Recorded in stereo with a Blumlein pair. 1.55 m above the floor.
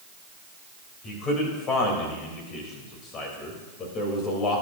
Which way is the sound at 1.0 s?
30° left.